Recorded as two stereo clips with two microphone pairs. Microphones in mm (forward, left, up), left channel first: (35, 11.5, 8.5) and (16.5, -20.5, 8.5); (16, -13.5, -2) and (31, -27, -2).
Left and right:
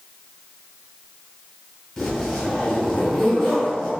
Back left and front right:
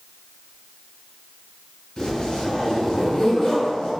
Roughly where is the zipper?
Behind left.